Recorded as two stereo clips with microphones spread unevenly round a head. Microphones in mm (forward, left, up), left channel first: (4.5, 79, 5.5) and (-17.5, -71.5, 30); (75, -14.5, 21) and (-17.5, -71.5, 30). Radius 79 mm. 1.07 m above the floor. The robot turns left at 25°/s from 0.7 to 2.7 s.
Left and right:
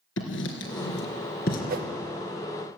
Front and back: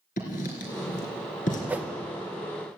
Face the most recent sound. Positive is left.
turn(degrees=-95)